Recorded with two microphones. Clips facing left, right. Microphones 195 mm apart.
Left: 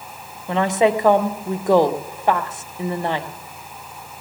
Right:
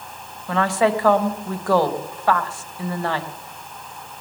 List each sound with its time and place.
0.5 s a woman speaking: 20° left (ahead or behind), 0.9 m